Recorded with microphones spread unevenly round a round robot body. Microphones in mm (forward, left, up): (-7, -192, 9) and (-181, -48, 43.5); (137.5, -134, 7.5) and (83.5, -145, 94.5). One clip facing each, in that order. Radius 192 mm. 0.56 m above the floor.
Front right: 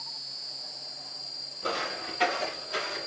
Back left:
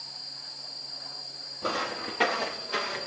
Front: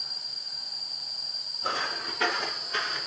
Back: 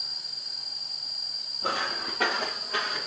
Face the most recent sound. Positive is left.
turn(degrees=155)